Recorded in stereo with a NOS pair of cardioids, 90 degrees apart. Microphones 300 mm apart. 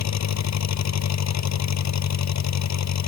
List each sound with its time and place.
0.0 s an engine running: 65° left